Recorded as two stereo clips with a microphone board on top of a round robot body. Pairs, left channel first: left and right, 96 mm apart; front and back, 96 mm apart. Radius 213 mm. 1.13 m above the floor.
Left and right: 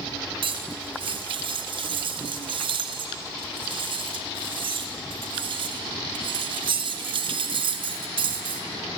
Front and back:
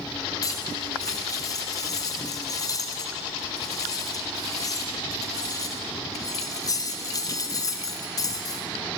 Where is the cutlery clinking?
55° right, 1.1 m.